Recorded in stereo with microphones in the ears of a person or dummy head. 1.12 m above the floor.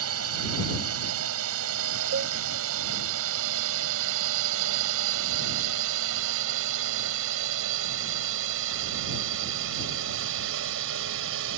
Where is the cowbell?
80° right.